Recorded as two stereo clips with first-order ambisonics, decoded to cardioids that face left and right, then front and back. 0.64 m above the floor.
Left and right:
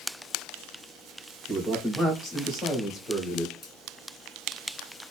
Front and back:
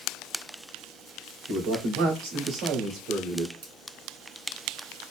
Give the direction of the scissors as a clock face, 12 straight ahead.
6 o'clock.